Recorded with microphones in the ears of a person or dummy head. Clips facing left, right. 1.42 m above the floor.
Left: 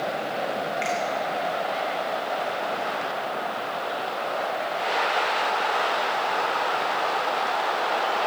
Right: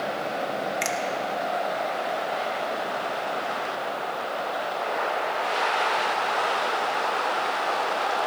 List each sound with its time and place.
0.8 s a finger snap: 60° right (ahead or behind), 1.1 m